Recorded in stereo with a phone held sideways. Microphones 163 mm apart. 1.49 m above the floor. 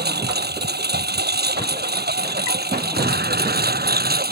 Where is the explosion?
90° right.